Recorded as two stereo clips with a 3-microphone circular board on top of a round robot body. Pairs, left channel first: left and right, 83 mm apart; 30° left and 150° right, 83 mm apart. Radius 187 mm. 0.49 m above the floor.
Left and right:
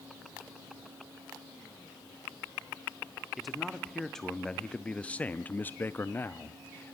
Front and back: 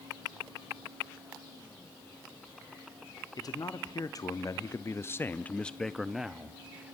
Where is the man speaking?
Straight ahead, 1.7 m; by 7.0 s 145° left, 1.3 m.